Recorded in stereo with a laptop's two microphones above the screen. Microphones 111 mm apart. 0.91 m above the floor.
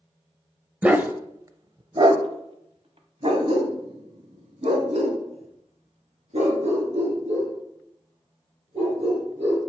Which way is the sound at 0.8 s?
10° right (ahead or behind).